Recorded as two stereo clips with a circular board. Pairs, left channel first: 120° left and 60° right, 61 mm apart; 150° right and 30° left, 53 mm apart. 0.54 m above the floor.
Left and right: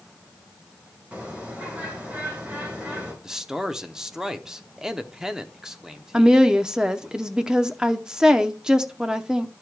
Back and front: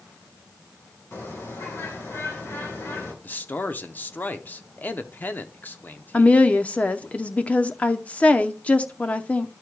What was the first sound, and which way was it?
A bird, 125° right.